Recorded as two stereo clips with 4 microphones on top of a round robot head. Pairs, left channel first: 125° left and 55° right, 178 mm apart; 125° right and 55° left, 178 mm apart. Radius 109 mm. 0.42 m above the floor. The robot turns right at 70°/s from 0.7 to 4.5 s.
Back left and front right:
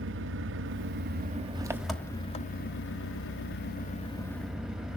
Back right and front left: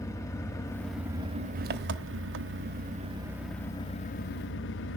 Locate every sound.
0.0 s an engine running: 50° right, 1.0 m; by 5.0 s 145° right, 1.0 m